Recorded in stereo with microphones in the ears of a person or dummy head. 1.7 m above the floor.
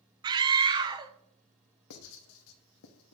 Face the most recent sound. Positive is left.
turn(degrees=75)  # may be behind; listen again after turning